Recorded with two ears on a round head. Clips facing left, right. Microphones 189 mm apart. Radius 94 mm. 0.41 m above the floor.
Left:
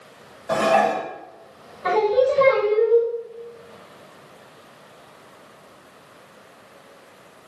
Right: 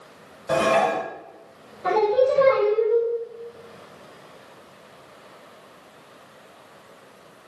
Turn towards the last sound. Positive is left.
turn(degrees=-15)  # may be behind; listen again after turning